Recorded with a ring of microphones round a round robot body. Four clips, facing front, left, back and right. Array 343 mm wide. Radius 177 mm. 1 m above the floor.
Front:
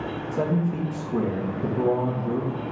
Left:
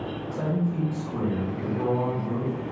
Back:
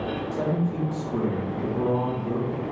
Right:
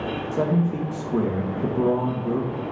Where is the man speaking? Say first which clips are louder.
Right 5 dB, front 3 dB; 75° right, 1.4 m.